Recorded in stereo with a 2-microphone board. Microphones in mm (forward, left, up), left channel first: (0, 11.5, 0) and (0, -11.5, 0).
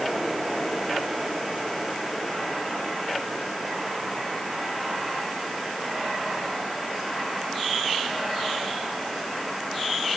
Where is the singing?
I don't hear singing.